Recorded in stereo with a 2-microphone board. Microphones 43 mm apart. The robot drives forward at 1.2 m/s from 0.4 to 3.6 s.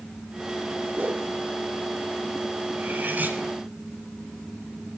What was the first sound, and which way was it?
A whoosh, 45° right (ahead or behind).